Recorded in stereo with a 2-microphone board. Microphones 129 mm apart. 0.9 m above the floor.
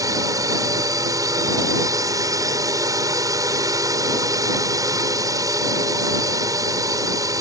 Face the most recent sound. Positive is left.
turn(degrees=-25)  # may be behind; listen again after turning